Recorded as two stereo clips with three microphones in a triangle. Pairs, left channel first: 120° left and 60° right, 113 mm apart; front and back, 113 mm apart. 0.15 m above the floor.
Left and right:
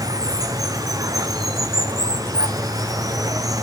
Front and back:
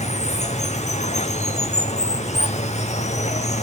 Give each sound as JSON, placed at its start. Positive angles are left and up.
{"t": 0.0, "sound": "running water", "azimuth_deg": 0, "distance_m": 0.9}